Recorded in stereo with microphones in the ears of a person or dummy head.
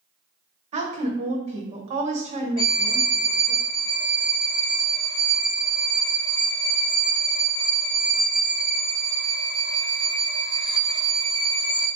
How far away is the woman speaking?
About 1.0 m.